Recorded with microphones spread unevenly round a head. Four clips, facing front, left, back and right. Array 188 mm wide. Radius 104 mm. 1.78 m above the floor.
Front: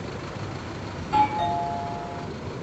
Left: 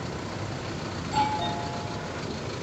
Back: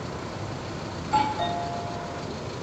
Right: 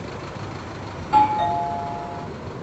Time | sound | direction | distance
1.0 | a doorbell | 100° right | 5 m